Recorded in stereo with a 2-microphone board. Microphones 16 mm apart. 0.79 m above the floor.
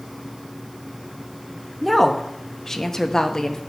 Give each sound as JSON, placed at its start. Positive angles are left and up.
{"t": 1.8, "sound": "a woman speaking", "side_deg": 5, "distance_m": 1.1}